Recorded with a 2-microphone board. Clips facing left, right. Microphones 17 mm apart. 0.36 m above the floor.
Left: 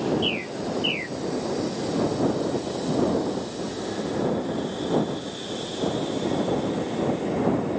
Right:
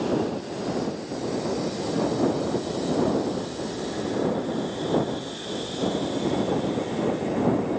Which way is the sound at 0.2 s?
70° left (ahead or behind).